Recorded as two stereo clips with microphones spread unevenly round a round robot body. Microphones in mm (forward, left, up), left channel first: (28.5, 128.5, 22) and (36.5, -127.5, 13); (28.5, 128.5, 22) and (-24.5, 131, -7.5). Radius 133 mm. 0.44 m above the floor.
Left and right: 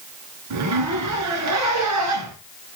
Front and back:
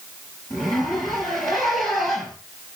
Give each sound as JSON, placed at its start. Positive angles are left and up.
{"t": 0.5, "sound": "a zipper", "azimuth_deg": -70, "distance_m": 4.0}